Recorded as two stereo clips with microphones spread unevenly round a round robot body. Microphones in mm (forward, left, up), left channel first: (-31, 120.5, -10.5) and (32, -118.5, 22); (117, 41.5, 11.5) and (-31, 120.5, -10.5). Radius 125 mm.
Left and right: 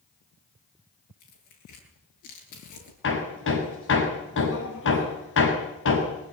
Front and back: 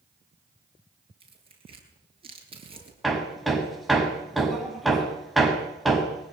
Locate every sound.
1.2 s tearing paper: 95° left, 9.5 m
3.0 s hammering: 60° left, 6.5 m